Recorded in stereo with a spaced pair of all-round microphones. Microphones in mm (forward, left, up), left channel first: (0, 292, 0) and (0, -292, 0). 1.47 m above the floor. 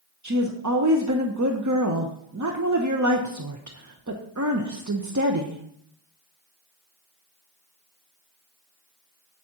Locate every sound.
0.2 s a woman speaking: 30° right (ahead or behind), 0.7 m